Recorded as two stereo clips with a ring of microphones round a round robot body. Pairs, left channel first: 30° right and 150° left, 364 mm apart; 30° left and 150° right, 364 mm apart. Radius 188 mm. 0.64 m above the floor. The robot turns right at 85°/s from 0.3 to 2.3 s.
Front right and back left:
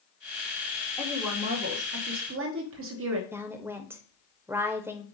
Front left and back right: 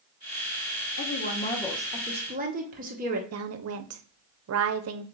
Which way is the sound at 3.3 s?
130° right.